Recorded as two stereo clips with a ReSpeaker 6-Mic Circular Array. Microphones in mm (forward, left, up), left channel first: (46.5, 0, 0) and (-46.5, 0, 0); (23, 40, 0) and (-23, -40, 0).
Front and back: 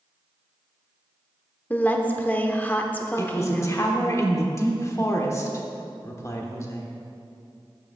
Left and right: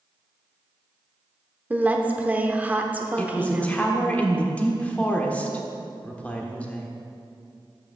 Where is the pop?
I don't hear a pop.